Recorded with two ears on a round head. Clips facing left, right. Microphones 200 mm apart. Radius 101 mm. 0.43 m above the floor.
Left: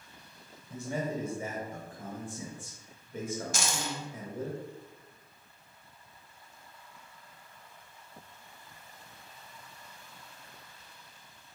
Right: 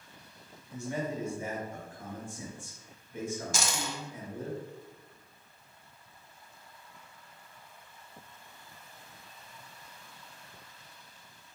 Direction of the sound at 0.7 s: 35° left (ahead or behind).